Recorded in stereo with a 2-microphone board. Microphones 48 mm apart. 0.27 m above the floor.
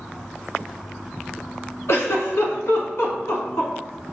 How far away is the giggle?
About 1.0 m.